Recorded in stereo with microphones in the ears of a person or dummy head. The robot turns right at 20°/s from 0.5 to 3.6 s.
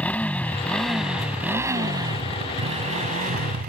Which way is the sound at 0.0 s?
170° left.